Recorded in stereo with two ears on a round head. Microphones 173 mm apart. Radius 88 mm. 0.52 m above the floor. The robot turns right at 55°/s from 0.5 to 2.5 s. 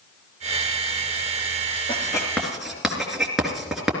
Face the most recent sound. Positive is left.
turn(degrees=0)  # may be behind; listen again after turning